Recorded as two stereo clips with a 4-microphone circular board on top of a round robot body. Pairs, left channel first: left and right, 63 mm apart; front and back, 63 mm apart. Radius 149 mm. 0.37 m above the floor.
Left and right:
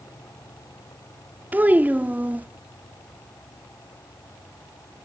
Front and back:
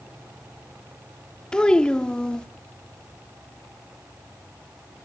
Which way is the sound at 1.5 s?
65° right.